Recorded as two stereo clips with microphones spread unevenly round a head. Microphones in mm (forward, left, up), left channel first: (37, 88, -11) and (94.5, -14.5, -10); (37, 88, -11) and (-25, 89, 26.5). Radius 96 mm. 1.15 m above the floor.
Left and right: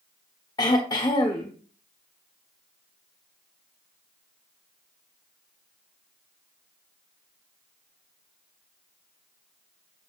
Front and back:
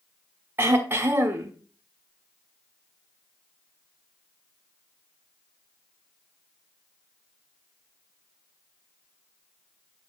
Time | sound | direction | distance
0.6 | throat clearing | straight behind | 1.2 m